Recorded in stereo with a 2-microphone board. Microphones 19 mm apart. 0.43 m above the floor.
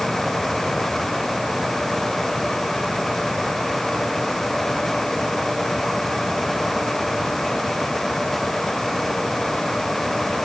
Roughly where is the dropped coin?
No dropped coin in this recording.